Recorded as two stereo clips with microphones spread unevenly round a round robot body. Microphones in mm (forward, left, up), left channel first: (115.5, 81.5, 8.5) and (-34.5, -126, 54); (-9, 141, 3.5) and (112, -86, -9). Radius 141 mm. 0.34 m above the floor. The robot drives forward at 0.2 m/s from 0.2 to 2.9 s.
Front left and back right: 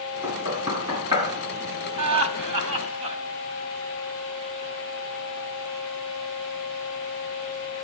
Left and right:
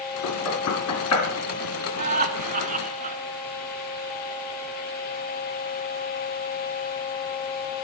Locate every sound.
0.2 s knocking: 155° left, 3.5 m
2.0 s laughter: 115° right, 2.5 m; by 3.2 s 120° right, 2.5 m